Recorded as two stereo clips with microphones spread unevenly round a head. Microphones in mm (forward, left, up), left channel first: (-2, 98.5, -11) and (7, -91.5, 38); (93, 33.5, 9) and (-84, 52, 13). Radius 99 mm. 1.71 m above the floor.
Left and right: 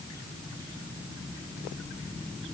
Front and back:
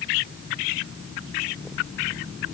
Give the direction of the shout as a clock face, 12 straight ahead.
No shout in this recording.